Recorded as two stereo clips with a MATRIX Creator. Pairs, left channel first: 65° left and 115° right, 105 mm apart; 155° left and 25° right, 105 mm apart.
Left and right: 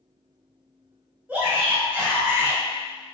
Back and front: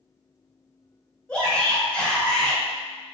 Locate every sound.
1.3 s a shout: 150° right, 1.0 m